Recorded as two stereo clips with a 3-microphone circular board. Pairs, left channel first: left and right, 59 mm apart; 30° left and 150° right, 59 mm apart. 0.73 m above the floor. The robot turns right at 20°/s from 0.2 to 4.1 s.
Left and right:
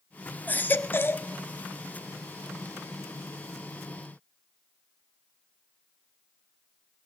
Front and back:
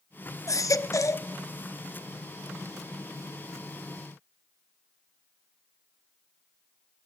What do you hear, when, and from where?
0.5 s a baby crying: 35° left, 0.5 m; by 1.3 s 50° left, 0.5 m